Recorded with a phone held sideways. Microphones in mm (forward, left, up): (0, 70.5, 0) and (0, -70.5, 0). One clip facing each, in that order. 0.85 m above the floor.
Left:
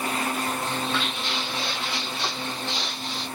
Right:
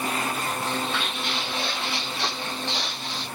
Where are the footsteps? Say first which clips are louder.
Even; 50° right (ahead or behind), 2.5 m; by 3.2 s 70° right (ahead or behind), 2.5 m.